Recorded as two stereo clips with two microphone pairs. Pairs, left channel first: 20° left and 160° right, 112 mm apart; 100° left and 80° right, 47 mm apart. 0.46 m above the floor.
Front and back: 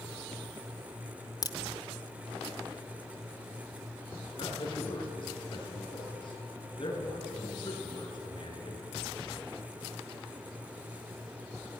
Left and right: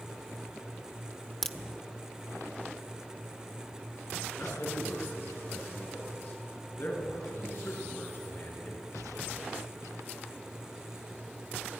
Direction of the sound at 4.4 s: 60° left.